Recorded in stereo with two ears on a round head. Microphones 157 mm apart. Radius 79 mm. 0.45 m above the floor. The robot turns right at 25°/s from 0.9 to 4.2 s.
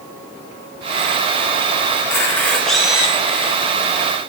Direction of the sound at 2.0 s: 20° left (ahead or behind).